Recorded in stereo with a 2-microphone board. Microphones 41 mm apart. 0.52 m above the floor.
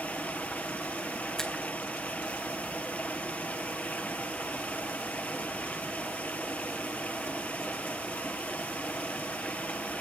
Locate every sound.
0.0 s running water: 45° left (ahead or behind), 1.7 m
1.4 s a finger snap: 15° left (ahead or behind), 3 m